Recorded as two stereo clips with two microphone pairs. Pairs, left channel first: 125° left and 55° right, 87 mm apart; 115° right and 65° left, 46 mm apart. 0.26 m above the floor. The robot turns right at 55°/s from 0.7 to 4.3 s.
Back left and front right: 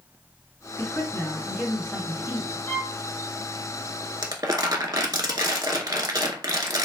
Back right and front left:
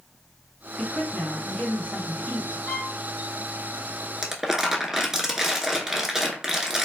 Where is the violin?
Straight behind, 0.7 m; by 2.9 s 170° right, 0.7 m.